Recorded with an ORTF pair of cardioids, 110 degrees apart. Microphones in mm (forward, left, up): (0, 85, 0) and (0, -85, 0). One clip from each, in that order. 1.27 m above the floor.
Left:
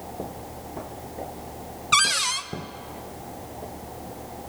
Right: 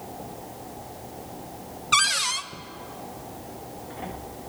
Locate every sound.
1.9 s a cupboard door: 5° left, 0.8 m